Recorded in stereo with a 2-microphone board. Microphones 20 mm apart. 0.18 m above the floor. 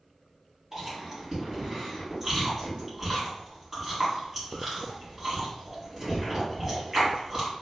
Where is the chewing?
20° right (ahead or behind), 1.7 m.